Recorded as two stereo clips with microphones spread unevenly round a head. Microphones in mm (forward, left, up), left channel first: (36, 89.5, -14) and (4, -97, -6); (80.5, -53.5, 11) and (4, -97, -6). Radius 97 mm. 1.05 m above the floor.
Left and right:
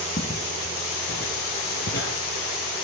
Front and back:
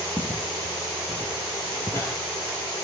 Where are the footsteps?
130° left, 1.9 m; by 2.1 s 85° left, 1.6 m.